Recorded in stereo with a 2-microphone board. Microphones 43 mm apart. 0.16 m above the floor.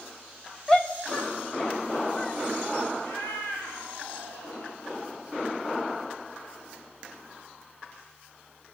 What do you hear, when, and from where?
0.7 s a shout: 20° left (ahead or behind), 1.4 m; by 2.9 s 35° left (ahead or behind), 4 m
3.0 s a cat meowing: 50° left (ahead or behind), 5.5 m